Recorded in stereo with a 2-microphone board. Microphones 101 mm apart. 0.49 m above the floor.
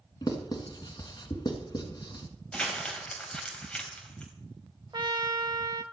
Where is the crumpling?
10° left (ahead or behind), 3 m.